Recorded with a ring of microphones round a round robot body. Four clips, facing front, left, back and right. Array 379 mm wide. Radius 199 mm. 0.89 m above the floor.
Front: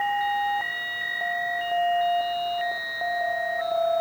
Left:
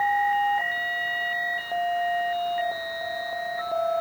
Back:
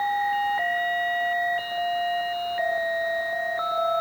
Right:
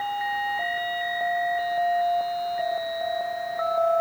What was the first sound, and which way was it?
Only background noise.